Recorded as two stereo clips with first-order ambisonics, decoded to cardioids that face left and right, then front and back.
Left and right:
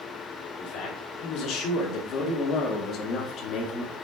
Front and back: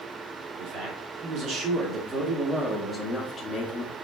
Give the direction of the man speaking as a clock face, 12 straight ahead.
8 o'clock.